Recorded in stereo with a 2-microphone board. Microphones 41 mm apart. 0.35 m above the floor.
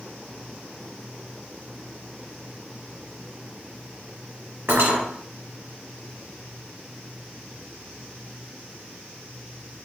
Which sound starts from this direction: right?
Cutlery clinking, at 4.7 s.